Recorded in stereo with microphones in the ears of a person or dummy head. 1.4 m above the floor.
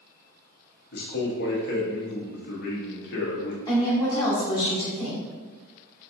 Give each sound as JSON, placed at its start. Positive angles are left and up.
{"t": 0.9, "sound": "a man speaking", "side_deg": 60, "distance_m": 0.8}
{"t": 3.7, "sound": "a woman speaking", "side_deg": 20, "distance_m": 1.2}